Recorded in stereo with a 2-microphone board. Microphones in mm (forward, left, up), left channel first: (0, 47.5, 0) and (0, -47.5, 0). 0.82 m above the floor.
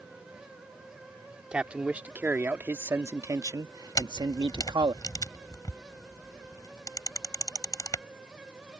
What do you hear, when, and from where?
1.5 s a man speaking: 10° right (ahead or behind); by 5.0 s 60° right (ahead or behind)
4.0 s a camera shutter: 45° left (ahead or behind)